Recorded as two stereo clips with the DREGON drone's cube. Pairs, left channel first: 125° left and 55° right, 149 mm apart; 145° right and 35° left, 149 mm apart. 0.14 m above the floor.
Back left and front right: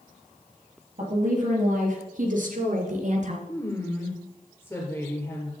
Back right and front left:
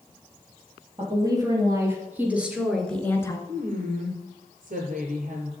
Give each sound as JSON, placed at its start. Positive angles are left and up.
{"t": 1.0, "sound": "a woman speaking", "azimuth_deg": -25, "distance_m": 4.0}
{"t": 3.5, "sound": "a woman speaking", "azimuth_deg": 50, "distance_m": 2.5}